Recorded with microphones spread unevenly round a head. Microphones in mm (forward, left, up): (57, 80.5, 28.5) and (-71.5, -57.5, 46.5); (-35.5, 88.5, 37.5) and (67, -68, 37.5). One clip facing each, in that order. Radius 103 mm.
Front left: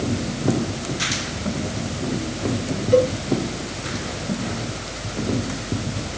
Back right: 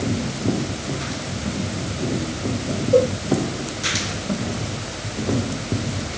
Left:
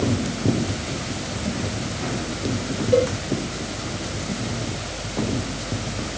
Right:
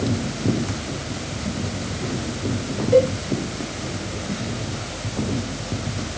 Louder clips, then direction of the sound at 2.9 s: Even, right 3 dB; 25° left.